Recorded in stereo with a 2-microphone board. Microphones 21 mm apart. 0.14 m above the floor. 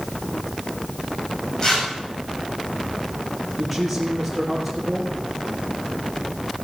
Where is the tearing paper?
35° left (ahead or behind), 7.5 m.